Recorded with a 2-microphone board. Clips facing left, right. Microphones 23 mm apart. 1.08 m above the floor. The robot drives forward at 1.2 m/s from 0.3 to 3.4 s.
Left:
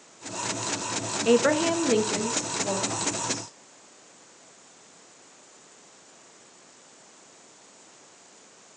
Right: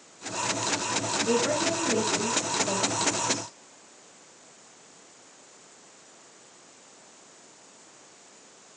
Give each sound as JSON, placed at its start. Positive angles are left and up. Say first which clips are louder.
{"t": 1.2, "sound": "a woman speaking", "louder": "left 7 dB", "side_deg": 75, "distance_m": 1.1}